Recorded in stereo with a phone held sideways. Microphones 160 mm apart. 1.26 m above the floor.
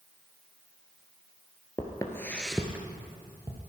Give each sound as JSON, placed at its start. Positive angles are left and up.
{"t": 1.8, "sound": "footsteps", "side_deg": 30, "distance_m": 1.5}